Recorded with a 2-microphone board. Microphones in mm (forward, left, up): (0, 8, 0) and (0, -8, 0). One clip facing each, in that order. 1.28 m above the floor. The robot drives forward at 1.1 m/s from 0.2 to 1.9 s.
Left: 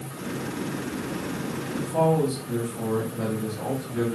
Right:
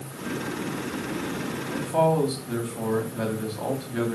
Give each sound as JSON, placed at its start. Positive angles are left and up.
{"t": 1.7, "sound": "a man speaking", "side_deg": -65, "distance_m": 3.0}